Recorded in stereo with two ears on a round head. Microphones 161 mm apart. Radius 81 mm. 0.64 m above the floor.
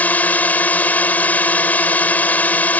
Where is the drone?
10° left (ahead or behind).